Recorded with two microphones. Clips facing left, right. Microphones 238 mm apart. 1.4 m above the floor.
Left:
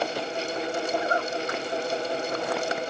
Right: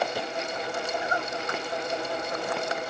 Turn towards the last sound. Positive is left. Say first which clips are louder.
# left 4 dB
turn(degrees=60)  # may be behind; listen again after turning